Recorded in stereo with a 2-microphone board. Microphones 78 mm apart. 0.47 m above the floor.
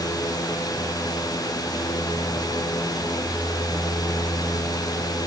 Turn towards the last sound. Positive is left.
No sound to turn to.